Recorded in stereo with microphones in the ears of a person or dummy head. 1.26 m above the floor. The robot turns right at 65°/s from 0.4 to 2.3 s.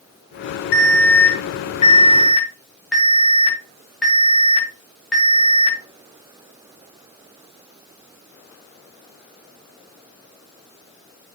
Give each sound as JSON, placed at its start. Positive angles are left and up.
{"t": 0.7, "sound": "an alarm", "azimuth_deg": 75, "distance_m": 3.0}